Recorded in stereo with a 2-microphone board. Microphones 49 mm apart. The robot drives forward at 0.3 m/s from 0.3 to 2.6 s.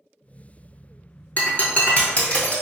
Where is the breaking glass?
40° left (ahead or behind), 0.8 m; by 2.6 s 25° left (ahead or behind), 1.2 m.